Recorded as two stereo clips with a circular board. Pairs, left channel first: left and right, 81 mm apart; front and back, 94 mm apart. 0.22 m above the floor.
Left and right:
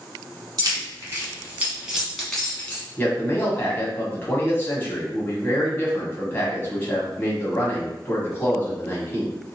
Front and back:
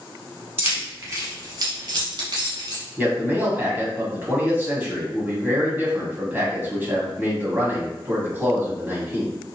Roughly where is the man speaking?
Behind left.